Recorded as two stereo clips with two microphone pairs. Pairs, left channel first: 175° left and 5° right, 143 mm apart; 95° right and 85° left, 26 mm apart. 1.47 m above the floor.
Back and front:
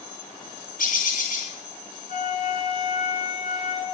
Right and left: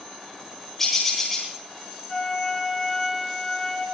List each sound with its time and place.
0.8 s a bird: 175° right, 6.5 m
2.1 s a flute: 170° right, 5.5 m